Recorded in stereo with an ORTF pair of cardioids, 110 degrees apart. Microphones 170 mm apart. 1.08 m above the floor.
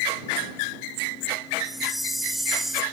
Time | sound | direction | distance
1.6 | a chime | straight ahead | ?